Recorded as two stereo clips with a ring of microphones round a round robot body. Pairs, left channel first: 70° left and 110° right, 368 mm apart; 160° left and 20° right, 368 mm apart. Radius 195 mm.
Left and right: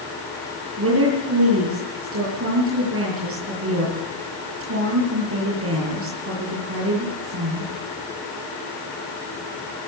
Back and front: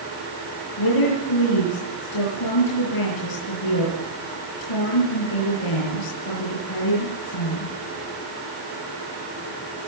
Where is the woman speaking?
170° right, 7.5 m.